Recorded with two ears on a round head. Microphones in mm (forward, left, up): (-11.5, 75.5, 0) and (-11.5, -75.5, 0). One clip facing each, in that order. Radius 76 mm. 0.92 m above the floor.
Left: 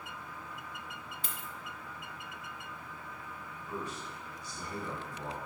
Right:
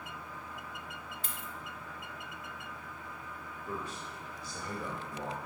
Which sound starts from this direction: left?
A dropped coin, at 1.2 s.